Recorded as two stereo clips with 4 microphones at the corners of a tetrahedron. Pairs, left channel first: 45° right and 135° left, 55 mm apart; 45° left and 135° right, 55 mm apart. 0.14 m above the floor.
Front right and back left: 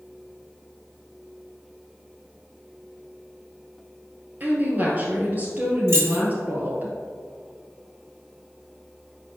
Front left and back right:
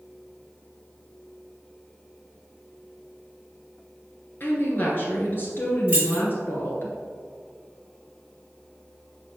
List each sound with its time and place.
4.4 s a woman speaking: 85° left, 2 m
5.9 s keys jangling: 165° left, 2.5 m